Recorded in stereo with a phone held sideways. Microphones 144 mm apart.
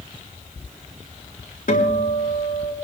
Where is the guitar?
70° left (ahead or behind), 4 m.